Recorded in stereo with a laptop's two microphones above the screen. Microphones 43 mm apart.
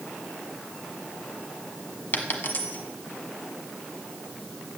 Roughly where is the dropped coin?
Left.